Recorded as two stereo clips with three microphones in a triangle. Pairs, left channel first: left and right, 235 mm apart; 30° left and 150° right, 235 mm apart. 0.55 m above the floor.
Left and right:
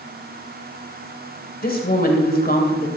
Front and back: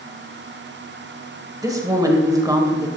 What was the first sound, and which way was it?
A woman speaking, 135° left.